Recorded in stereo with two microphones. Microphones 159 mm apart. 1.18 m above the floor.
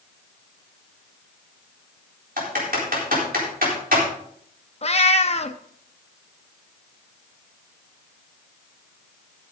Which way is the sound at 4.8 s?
45° left (ahead or behind).